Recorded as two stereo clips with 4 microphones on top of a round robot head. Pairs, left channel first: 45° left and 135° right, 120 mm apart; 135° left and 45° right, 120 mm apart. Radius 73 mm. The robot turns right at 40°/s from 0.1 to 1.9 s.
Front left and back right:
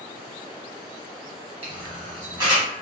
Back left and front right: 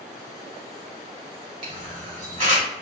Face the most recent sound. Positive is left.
turn(degrees=-75)